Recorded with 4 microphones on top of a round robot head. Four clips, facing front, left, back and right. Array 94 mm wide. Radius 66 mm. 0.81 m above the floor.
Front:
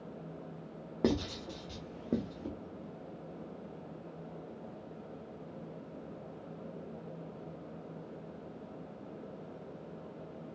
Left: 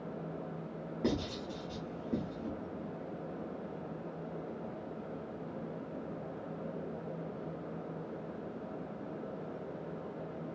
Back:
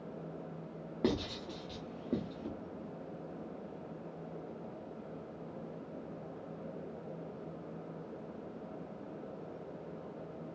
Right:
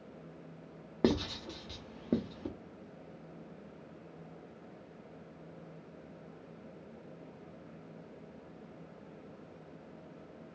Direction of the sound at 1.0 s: 70° right.